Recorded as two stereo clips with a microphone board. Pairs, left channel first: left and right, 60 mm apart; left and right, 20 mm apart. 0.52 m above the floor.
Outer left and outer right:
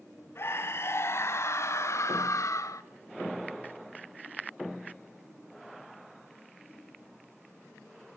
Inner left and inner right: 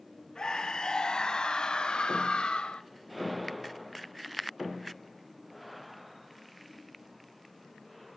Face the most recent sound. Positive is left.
turn(degrees=65)  # may be behind; listen again after turning